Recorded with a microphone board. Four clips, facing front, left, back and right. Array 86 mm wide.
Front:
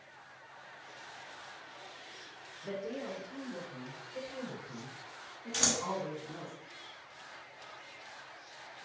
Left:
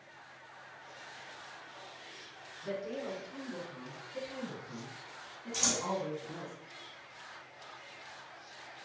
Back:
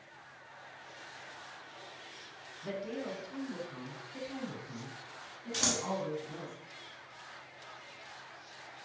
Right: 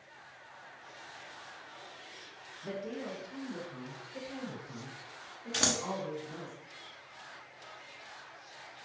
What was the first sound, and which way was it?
A woman speaking, straight behind.